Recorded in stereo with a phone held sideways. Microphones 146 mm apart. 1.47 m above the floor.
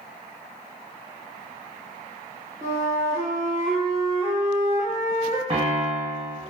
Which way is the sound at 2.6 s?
15° right (ahead or behind).